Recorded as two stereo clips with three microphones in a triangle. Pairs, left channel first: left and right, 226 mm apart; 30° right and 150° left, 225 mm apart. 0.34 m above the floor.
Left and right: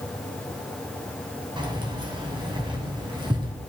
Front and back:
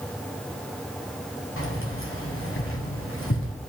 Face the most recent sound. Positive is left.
turn(degrees=-20)